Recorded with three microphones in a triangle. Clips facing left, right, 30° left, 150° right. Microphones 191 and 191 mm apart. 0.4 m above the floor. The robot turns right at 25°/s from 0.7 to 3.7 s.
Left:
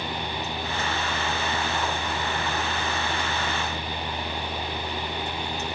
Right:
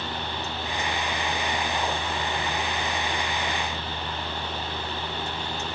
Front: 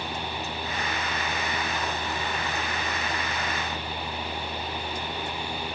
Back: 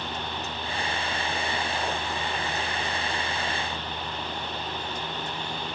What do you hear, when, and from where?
Only background noise.